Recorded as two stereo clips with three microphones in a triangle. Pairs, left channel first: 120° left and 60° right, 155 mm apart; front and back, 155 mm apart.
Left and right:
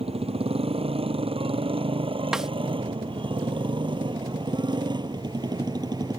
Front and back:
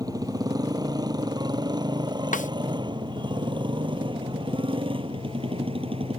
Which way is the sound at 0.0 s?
115° right.